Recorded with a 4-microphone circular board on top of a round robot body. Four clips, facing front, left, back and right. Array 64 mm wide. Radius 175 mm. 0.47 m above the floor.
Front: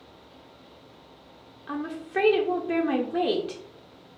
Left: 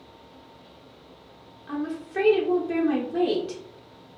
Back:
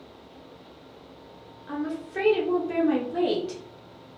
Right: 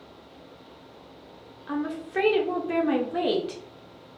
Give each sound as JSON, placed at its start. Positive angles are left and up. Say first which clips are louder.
{"t": 1.7, "sound": "a woman speaking", "louder": "right 1 dB, back 1 dB", "azimuth_deg": -35, "distance_m": 0.8}